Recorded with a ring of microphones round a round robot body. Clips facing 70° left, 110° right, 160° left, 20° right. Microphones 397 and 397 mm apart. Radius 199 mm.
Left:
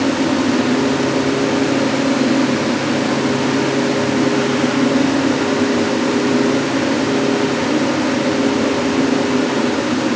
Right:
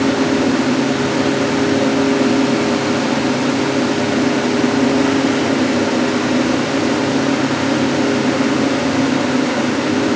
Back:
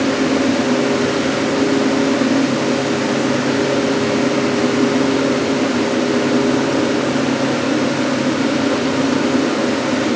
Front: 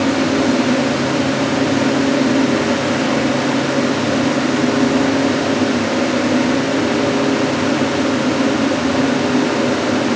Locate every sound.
Only background noise.